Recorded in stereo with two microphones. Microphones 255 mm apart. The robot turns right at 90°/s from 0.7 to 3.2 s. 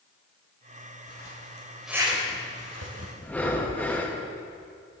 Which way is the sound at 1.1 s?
70° left (ahead or behind).